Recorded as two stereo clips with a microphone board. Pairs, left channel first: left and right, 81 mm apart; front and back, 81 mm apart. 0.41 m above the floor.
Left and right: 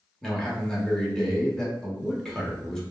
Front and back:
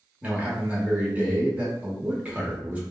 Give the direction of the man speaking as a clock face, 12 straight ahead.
7 o'clock.